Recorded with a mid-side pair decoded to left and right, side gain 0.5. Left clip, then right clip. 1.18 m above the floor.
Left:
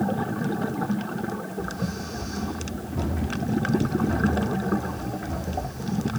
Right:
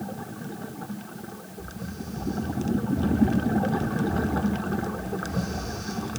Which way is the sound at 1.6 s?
60° left.